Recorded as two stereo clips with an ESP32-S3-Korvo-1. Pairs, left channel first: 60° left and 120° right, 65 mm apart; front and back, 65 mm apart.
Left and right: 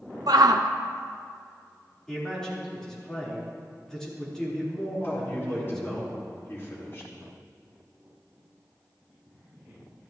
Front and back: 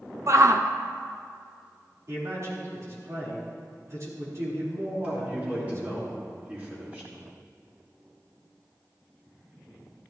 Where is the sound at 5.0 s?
115° left, 4.5 m.